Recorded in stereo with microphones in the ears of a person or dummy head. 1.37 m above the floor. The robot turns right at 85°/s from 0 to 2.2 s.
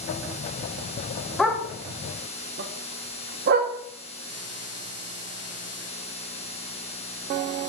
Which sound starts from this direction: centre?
A dog barking, at 1.4 s.